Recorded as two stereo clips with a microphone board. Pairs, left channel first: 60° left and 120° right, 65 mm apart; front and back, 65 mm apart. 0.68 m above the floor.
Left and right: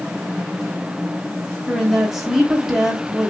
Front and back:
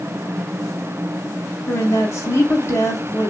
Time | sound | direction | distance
1.7 | a woman speaking | 35° right | 1.1 m